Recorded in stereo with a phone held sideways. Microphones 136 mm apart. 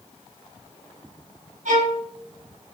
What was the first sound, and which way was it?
A violin, 65° right (ahead or behind).